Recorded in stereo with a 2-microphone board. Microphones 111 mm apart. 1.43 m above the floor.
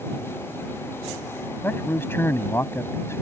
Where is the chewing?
I don't hear chewing.